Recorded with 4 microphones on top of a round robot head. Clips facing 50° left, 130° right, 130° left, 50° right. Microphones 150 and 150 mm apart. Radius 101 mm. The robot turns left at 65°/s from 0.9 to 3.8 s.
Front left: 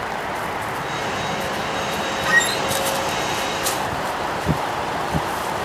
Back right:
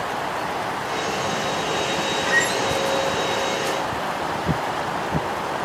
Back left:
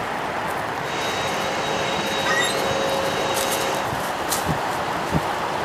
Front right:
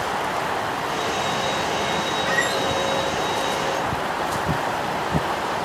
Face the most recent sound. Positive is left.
turn(degrees=-15)